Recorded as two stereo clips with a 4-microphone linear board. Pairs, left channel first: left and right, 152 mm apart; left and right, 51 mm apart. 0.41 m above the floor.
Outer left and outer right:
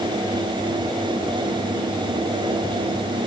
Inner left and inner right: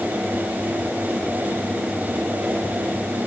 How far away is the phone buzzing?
I don't hear a phone buzzing.